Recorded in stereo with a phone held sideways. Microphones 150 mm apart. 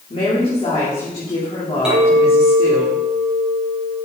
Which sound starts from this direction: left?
A woman speaking, at 0.1 s.